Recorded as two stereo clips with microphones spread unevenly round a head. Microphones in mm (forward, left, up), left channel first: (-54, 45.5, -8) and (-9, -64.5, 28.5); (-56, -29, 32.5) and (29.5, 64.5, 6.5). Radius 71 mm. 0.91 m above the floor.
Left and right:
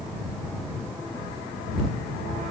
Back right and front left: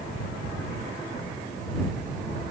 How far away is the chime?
I don't hear a chime.